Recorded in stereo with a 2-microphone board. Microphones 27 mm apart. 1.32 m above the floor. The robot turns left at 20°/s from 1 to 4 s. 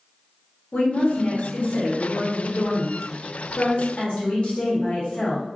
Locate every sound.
0.7 s a woman speaking: 110° left, 0.9 m; by 5.5 s 50° left, 0.9 m